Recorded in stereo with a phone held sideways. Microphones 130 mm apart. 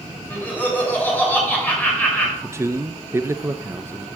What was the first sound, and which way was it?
Laughter, 15° left (ahead or behind).